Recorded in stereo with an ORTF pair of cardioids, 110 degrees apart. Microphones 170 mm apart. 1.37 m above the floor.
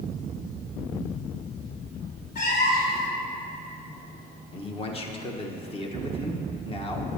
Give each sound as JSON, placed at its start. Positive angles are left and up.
{"t": 2.4, "sound": "a cat meowing", "azimuth_deg": 70, "distance_m": 2.5}
{"t": 4.5, "sound": "a man speaking", "azimuth_deg": 35, "distance_m": 1.2}